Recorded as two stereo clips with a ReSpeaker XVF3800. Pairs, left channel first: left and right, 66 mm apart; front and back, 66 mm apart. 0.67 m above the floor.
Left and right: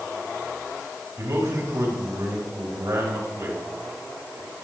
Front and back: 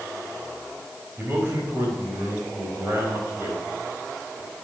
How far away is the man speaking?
About 4.5 m.